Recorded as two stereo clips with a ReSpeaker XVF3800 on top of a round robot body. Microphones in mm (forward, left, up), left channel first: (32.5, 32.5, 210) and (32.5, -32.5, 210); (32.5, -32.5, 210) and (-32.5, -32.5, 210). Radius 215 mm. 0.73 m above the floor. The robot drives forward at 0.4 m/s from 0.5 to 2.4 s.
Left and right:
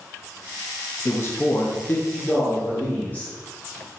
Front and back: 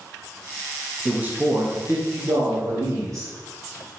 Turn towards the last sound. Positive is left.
turn(degrees=150)